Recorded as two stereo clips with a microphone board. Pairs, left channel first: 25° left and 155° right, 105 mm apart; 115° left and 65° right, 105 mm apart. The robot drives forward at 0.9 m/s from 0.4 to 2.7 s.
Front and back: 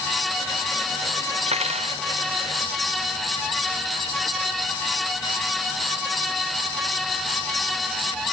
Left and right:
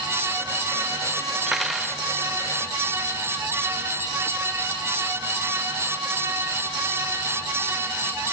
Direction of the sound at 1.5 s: 155° right.